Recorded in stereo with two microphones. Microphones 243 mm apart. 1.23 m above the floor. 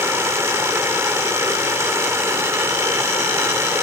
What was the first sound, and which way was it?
Running water, 10° right (ahead or behind).